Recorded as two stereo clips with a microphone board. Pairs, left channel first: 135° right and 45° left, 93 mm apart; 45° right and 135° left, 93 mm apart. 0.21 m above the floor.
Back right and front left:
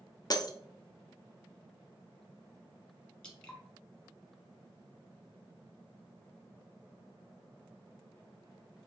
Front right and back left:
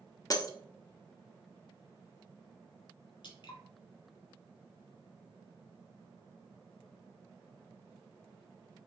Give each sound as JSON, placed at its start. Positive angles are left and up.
{"t": 0.3, "sound": "breaking glass", "azimuth_deg": -90, "distance_m": 0.6}
{"t": 3.2, "sound": "dripping", "azimuth_deg": -55, "distance_m": 1.2}